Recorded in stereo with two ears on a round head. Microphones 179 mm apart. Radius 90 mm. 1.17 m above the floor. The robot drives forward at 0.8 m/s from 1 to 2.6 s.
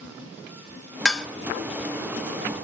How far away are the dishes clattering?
About 1.3 m.